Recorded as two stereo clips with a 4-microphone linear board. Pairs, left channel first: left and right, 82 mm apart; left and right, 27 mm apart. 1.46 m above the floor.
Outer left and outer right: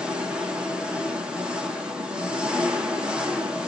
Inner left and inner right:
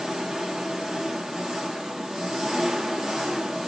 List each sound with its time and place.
0.0 s an engine running: 10° right (ahead or behind), 1.4 m